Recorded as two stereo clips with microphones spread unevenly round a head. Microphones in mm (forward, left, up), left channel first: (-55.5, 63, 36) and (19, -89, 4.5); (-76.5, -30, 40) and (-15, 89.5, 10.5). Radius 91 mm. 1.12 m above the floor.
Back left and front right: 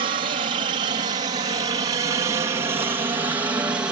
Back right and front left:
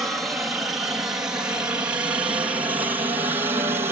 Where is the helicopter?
20° right; by 3.9 s 10° left.